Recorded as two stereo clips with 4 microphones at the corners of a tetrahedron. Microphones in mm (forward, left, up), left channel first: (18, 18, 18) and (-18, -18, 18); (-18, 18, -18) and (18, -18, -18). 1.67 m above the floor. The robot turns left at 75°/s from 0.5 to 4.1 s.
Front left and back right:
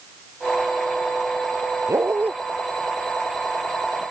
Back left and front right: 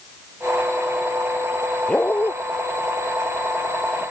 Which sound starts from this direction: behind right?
A dog barking, at 1.9 s.